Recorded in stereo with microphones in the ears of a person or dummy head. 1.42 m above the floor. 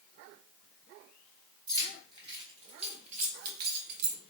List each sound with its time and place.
1.7 s keys jangling: 20° right (ahead or behind), 1.9 m; by 4.2 s 65° right (ahead or behind), 0.8 m